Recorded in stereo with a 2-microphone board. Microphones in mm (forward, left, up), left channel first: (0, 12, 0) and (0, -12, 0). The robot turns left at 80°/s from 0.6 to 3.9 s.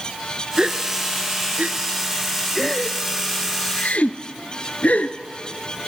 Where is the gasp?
30° right (ahead or behind), 0.7 m; by 5.2 s 65° left (ahead or behind), 0.7 m.